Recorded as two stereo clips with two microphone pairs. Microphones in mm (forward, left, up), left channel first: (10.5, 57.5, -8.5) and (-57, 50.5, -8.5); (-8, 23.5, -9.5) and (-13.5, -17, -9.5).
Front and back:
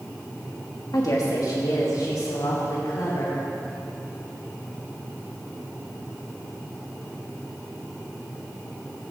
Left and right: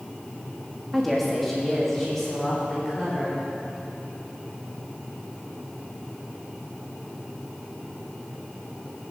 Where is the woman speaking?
10° right, 1.3 m; by 3.4 s straight ahead, 3.5 m.